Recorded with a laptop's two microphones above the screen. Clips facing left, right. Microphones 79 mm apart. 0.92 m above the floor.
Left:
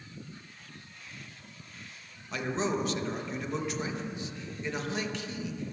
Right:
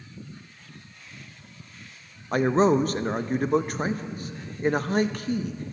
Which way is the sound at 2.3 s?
50° right (ahead or behind).